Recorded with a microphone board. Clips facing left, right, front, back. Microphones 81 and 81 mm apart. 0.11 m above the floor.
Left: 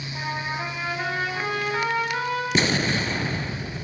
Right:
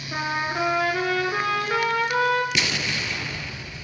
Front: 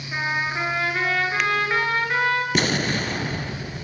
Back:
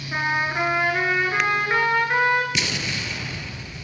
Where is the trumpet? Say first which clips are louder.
Right 4 dB, back 2 dB; 100° right, 7.5 m.